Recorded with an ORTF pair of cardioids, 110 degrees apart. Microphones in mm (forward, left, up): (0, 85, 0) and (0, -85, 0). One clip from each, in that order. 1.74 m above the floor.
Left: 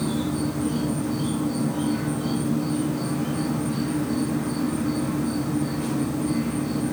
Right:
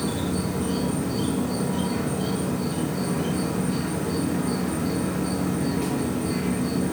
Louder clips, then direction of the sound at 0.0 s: Left 1 dB; 35° right.